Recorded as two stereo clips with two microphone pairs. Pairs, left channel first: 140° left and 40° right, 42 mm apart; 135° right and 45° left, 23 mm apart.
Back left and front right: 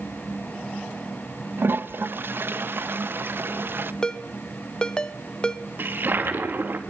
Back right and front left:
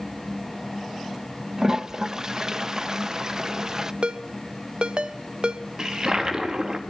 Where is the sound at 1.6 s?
20° right, 0.8 m.